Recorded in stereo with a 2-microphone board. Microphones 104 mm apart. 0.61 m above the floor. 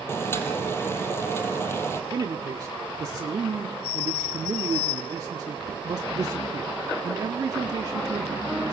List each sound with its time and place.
0.1 s boiling: 25° left (ahead or behind), 4 m
2.1 s a man speaking: 40° right (ahead or behind), 1.3 m